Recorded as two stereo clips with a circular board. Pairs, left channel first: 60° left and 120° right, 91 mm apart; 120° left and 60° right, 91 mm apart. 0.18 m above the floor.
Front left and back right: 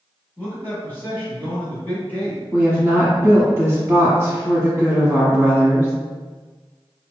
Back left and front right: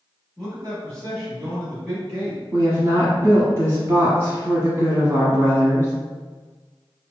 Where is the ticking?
No ticking in this recording.